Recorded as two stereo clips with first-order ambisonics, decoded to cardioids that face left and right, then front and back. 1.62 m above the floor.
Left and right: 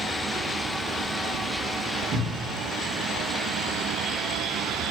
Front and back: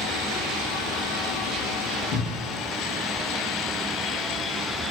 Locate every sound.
2.1 s a cupboard door: 50° right, 0.8 m